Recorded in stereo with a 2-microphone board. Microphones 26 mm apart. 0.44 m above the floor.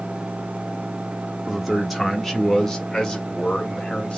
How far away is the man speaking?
About 1.2 m.